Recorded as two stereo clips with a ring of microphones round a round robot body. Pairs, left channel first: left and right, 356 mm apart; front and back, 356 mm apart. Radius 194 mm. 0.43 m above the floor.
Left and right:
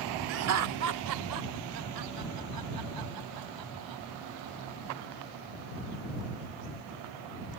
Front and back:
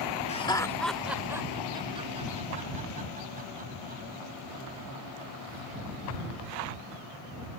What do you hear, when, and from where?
0.3 s laughter: 65° right; by 4.0 s 115° right